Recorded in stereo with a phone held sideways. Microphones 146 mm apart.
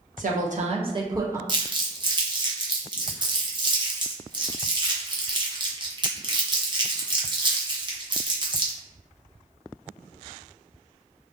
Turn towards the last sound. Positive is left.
turn(degrees=-30)  # may be behind; listen again after turning